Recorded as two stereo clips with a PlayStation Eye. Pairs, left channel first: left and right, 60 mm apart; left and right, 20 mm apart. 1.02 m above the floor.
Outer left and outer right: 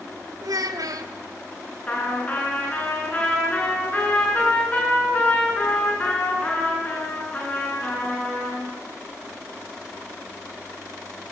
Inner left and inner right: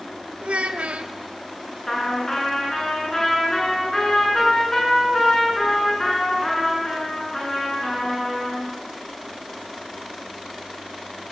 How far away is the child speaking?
About 2.5 m.